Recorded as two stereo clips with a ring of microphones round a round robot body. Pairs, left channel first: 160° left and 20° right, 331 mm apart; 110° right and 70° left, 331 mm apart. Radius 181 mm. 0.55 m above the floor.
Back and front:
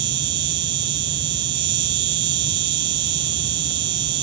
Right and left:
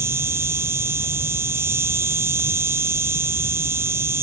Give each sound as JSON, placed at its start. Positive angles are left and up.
{"t": 0.0, "sound": "an insect", "azimuth_deg": -15}